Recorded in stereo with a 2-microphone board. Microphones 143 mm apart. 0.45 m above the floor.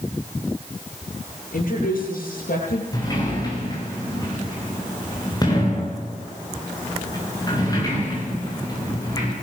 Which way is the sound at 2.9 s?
25° left (ahead or behind).